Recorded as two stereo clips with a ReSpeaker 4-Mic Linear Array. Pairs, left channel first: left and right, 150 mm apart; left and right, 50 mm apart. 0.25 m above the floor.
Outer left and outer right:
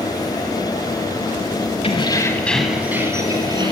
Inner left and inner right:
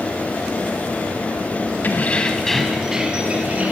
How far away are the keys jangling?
About 1.1 m.